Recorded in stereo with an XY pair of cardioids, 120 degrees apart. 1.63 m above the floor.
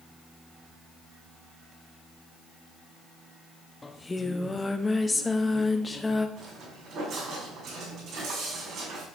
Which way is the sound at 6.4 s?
65° right.